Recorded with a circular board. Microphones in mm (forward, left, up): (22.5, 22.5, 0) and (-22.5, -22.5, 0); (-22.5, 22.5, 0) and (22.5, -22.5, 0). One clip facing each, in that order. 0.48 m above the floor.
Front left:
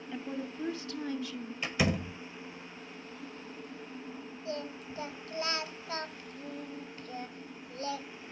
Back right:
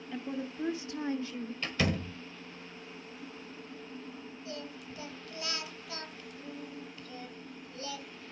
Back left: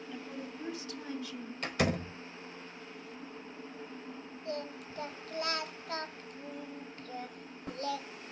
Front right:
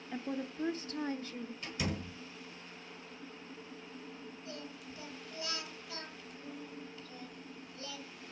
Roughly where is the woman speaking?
Ahead right.